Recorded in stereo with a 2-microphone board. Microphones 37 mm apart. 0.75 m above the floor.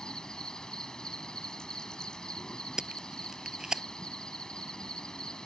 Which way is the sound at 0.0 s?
20° left (ahead or behind).